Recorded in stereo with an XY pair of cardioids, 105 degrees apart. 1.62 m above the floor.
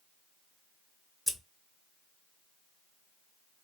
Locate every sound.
1.3 s scissors: straight ahead, 0.6 m